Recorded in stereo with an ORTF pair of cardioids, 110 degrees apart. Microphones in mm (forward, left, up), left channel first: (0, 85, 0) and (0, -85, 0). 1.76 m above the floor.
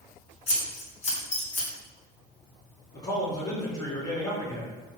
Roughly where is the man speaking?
Ahead.